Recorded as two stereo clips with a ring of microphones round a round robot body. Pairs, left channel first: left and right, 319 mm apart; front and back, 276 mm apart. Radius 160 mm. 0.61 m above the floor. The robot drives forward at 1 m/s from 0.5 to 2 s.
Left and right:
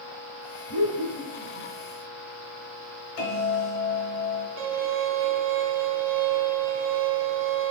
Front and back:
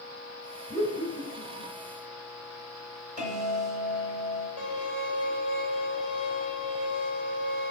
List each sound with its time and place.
0.7 s laughter: 65° left, 2.5 m; by 1.7 s 85° left, 2.5 m
3.2 s a bell: 120° left, 3.5 m
4.6 s a violin: 120° right, 1.1 m